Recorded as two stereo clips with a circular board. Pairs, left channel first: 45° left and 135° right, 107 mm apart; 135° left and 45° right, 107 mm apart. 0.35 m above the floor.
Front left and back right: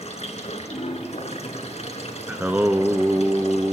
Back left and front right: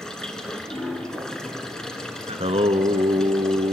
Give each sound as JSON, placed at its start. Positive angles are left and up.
{"t": 0.0, "sound": "running water", "azimuth_deg": 50, "distance_m": 1.7}
{"t": 2.3, "sound": "singing", "azimuth_deg": -60, "distance_m": 0.8}